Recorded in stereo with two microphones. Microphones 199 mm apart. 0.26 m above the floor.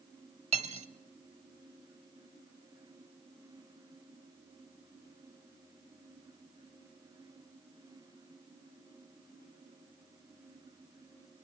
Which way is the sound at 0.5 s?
30° right (ahead or behind).